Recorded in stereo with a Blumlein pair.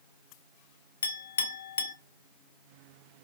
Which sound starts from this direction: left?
A clink, at 1.0 s.